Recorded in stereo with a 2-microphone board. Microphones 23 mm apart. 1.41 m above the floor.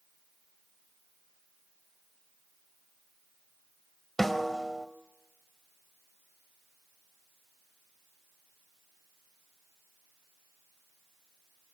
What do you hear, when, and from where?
4.2 s a snare drum: 10° left (ahead or behind), 1.2 m